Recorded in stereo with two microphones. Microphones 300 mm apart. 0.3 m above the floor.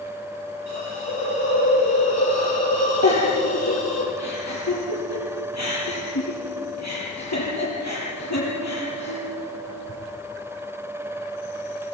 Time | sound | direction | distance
0.7 | a hiss | 60° left (ahead or behind) | 9 m
3.0 | a giggle | 65° left (ahead or behind) | 8 m